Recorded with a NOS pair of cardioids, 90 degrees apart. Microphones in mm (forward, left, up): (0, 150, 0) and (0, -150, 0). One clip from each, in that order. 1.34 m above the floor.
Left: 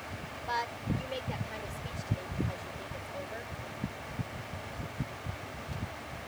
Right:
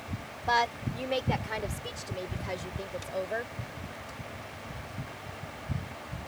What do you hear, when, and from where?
0.5 s a woman speaking: 60° right; by 3.5 s 65° right